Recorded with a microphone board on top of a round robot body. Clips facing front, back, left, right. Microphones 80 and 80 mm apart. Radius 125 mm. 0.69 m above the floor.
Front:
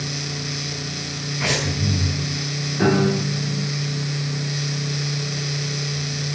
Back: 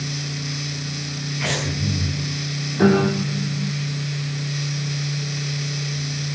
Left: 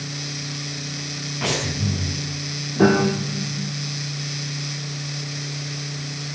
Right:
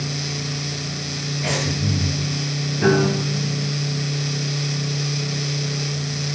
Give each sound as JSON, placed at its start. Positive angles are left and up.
{"t": 1.4, "sound": "breathing", "azimuth_deg": 80, "distance_m": 6.5}
{"t": 2.8, "sound": "a piano", "azimuth_deg": 110, "distance_m": 5.5}